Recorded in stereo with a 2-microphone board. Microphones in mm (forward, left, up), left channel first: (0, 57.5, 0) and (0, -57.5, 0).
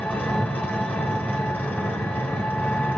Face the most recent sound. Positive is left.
turn(degrees=15)  # may be behind; listen again after turning